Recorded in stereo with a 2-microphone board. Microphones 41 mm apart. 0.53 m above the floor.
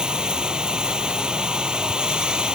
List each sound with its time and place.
0.0 s running water: 25° right (ahead or behind)